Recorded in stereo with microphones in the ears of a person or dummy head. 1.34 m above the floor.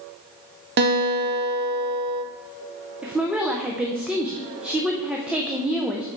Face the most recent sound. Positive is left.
turn(degrees=-5)  # may be behind; listen again after turning